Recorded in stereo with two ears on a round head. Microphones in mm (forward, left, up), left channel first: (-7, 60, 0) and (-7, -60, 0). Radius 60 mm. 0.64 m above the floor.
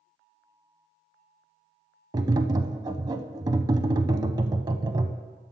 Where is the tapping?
30° right (ahead or behind), 0.6 m.